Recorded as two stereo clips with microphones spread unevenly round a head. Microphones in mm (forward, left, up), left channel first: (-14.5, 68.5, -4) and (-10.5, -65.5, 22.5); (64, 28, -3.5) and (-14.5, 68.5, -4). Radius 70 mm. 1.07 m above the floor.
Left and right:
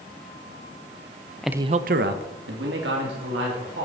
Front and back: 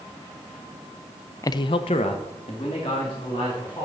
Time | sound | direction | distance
1.4 | a man speaking | 15° left | 0.5 m